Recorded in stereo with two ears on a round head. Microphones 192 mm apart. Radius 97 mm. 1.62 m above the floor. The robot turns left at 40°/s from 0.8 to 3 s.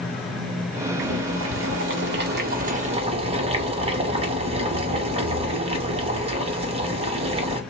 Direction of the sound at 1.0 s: 65° right.